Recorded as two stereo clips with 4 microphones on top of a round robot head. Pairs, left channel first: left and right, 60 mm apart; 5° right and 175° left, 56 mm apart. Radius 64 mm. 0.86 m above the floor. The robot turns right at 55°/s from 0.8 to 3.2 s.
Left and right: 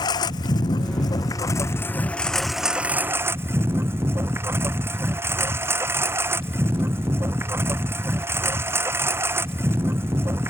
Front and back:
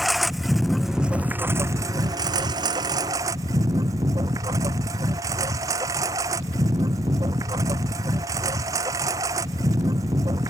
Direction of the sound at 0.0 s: 90° left.